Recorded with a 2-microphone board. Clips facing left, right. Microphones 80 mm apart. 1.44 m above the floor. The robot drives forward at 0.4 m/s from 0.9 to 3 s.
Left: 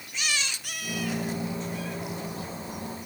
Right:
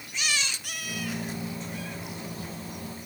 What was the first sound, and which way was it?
Only background noise.